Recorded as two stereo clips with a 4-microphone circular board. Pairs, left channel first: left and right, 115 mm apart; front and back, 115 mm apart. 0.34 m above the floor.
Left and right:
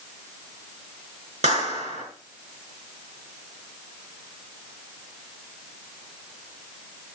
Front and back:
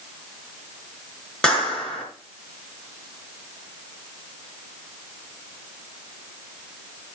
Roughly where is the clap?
Right.